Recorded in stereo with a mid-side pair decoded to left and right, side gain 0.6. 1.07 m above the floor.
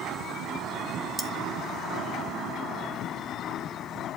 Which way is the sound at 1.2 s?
5° left.